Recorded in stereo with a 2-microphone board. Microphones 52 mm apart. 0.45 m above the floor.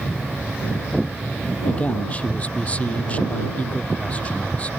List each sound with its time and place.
1.6 s a man speaking: 30° left (ahead or behind)